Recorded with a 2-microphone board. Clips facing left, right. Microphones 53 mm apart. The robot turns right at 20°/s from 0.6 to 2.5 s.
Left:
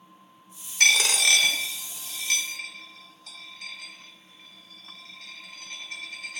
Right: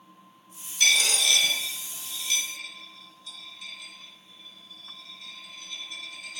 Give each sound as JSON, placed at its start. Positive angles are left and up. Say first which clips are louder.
{"t": 0.8, "sound": "a dropped coin", "louder": "left 3 dB", "side_deg": 60, "distance_m": 0.6}